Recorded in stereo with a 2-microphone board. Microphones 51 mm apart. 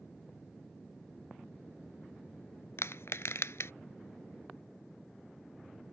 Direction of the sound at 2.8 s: 75° left (ahead or behind).